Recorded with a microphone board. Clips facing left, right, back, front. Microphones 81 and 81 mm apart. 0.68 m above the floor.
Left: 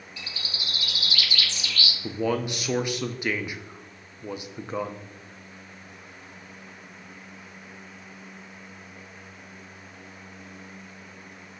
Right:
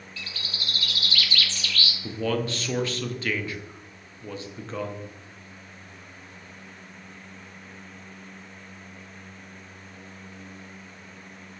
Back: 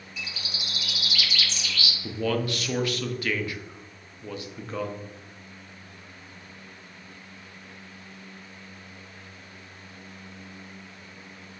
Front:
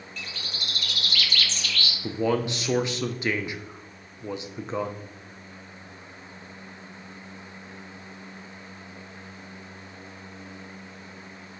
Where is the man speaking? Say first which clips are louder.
Left 1 dB, front 2 dB; 40° left, 0.6 m.